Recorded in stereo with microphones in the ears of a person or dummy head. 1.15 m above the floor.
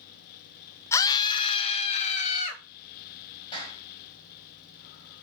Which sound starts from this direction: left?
A clap, at 3.5 s.